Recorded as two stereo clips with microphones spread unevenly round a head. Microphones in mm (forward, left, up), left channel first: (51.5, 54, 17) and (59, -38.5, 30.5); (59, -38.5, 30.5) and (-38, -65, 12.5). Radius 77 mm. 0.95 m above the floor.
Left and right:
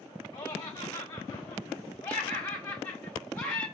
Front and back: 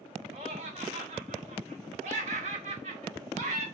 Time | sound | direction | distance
0.3 | laughter | 155° left | 2.5 m